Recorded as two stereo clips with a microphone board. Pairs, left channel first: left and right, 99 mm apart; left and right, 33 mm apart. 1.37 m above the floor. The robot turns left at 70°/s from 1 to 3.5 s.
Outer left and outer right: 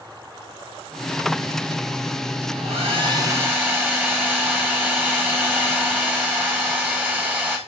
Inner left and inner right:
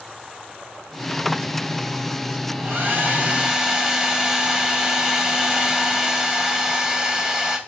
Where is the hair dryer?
100° right, 1.2 m; by 7.6 s 165° right, 1.2 m.